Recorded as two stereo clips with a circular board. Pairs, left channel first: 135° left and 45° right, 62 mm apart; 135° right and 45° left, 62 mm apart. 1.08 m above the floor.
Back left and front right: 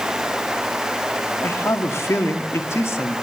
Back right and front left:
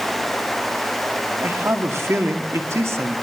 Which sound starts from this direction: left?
A man speaking, at 1.4 s.